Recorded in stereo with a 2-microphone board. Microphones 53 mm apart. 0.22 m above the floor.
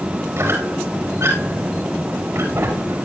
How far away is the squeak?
About 5 m.